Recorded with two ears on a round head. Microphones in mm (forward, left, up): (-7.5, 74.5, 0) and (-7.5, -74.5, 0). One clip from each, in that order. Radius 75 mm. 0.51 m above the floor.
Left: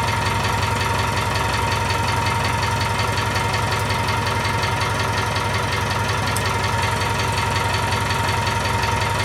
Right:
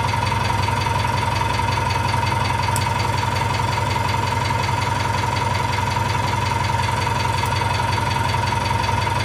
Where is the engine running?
35° left (ahead or behind), 1.2 m.